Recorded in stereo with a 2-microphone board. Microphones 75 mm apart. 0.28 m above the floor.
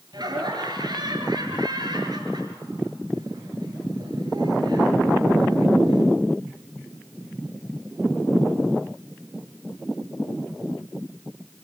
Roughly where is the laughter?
Right.